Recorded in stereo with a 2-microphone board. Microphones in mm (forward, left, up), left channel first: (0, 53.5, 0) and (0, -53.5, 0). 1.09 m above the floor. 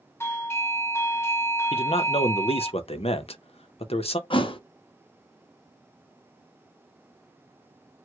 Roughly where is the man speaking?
Left.